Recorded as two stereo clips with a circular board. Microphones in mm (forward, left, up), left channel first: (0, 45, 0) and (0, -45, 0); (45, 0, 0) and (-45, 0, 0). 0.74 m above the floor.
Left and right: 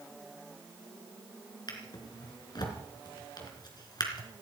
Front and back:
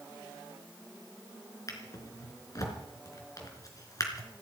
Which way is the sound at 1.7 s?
50° left.